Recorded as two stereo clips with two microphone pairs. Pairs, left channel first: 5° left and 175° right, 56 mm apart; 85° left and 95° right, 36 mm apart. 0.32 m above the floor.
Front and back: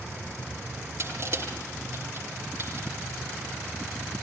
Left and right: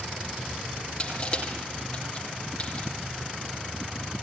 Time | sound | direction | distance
1.0 | crushing | 155° left | 7.5 m